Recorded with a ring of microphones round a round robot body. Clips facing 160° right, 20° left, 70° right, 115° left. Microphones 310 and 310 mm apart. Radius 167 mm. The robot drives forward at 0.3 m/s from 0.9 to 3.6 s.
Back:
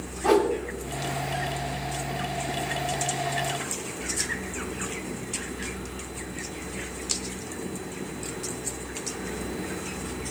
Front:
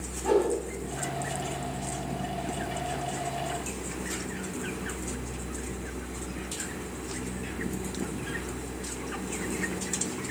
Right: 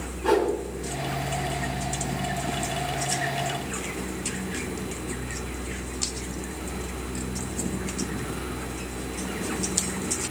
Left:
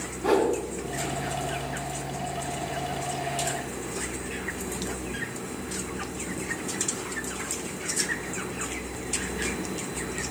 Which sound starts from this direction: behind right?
A whoosh, at 0.2 s.